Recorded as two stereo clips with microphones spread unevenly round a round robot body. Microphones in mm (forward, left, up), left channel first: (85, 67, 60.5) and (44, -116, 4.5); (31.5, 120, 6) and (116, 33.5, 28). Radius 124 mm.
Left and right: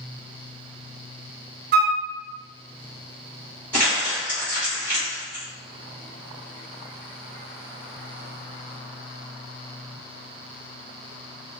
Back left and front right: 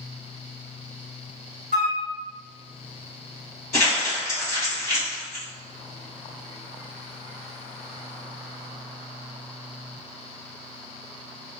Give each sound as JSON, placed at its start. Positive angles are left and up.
{"t": 1.7, "sound": "a flute", "azimuth_deg": -80, "distance_m": 0.5}
{"t": 3.7, "sound": "crumpling", "azimuth_deg": 175, "distance_m": 1.2}